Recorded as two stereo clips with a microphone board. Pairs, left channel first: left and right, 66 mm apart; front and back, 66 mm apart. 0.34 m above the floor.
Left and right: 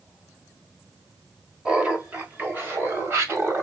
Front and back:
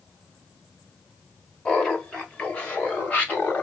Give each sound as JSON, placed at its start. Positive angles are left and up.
{"t": 1.6, "sound": "laughter", "azimuth_deg": -50, "distance_m": 1.4}